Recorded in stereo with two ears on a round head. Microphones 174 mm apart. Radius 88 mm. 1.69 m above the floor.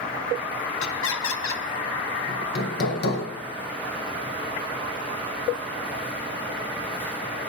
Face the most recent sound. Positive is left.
turn(degrees=55)  # may be behind; listen again after turning